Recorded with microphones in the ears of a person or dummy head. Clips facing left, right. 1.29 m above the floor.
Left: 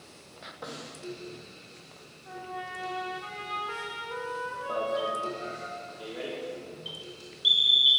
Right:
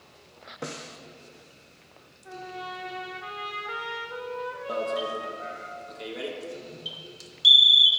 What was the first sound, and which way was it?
A snare drum, 45° right (ahead or behind).